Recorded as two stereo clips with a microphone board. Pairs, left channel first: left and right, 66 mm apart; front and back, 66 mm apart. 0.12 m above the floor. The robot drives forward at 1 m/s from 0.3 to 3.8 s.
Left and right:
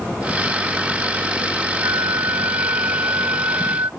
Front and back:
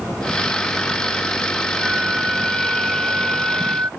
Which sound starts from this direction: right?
A flute, at 1.8 s.